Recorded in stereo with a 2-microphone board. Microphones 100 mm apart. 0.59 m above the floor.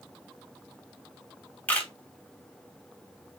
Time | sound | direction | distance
1.7 | a camera shutter | 15° left (ahead or behind) | 1.1 m